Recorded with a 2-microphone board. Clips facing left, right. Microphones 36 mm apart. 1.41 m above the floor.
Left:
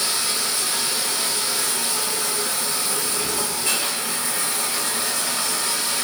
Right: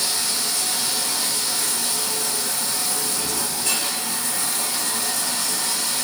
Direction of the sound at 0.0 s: 35° left (ahead or behind).